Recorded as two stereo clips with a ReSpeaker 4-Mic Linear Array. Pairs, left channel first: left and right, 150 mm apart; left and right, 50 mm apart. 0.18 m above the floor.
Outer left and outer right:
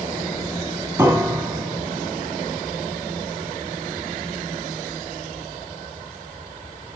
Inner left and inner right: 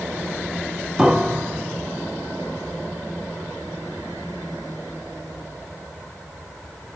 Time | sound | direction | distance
1.0 | a piano | 15° right (ahead or behind) | 1.8 m